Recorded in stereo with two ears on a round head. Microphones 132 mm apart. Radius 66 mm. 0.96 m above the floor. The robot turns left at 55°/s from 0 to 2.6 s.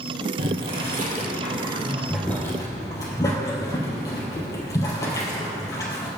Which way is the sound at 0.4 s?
75° right (ahead or behind).